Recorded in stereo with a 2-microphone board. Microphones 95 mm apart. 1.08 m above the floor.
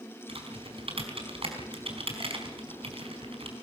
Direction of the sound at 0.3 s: 80° right.